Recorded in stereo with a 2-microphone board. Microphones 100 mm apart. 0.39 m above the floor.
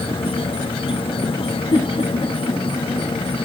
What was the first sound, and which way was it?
An insect, 65° left (ahead or behind).